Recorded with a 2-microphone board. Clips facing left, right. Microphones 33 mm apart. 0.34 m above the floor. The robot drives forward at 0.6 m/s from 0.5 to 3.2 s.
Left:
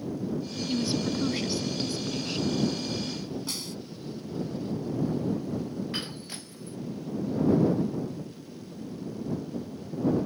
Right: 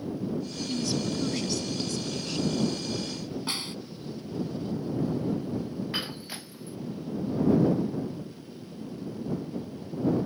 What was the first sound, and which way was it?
A woman speaking, 15° left (ahead or behind).